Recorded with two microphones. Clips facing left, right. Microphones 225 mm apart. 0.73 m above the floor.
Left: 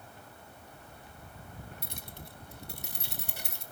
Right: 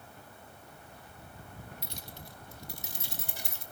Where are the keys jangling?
50° left (ahead or behind), 0.8 m; by 3.6 s 60° left (ahead or behind), 2 m.